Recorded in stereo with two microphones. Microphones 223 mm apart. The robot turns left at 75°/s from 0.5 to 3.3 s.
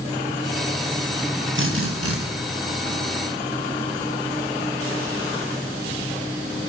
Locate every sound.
1.6 s a drill: 55° right, 8 m; by 2.2 s 105° right, 8 m